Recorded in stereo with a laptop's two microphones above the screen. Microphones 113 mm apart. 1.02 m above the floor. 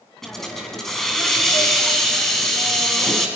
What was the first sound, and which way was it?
A hiss, 5° left (ahead or behind).